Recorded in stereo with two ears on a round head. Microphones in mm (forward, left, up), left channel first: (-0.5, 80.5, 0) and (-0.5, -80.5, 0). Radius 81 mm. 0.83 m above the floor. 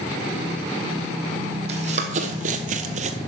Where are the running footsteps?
40° right (ahead or behind), 1.7 m.